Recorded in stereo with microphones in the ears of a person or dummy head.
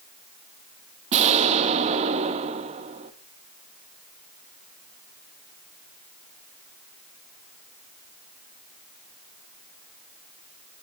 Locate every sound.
1.1 s an explosion: 35° right (ahead or behind), 1.3 m